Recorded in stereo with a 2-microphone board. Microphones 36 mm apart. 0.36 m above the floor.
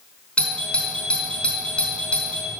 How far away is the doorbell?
About 4 m.